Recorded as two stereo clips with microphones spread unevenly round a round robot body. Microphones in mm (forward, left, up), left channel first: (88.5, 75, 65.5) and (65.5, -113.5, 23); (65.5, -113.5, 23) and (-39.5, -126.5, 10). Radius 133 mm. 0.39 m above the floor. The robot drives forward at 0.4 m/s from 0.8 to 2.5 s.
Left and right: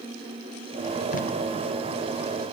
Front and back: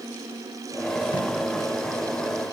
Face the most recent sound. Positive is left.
turn(degrees=70)